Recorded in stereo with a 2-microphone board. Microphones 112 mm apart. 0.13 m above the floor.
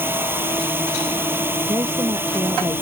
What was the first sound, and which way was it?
A drone, 20° right (ahead or behind).